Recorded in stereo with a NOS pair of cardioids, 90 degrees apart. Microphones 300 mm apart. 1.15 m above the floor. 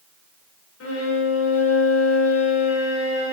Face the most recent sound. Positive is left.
turn(degrees=50)